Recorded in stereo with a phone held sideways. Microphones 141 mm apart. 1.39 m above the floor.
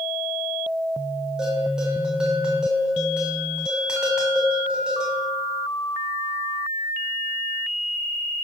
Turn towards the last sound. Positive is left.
turn(degrees=-5)  # may be behind; listen again after turning